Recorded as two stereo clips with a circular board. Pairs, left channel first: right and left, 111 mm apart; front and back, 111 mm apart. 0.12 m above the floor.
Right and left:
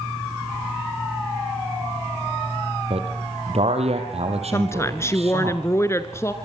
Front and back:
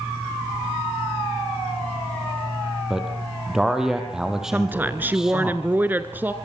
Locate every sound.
2.9 s a man speaking: 95° left, 3.5 m
4.5 s a woman speaking: 125° right, 1.4 m